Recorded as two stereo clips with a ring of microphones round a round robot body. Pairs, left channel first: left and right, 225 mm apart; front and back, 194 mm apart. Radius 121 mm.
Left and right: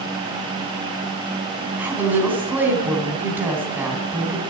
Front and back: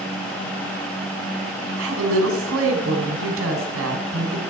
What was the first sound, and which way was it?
A woman speaking, 170° right.